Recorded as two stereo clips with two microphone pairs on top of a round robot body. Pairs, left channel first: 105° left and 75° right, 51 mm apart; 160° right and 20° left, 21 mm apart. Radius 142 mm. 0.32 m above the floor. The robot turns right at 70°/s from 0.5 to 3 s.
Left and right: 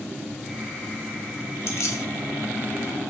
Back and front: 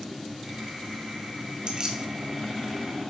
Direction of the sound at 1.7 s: 75° left.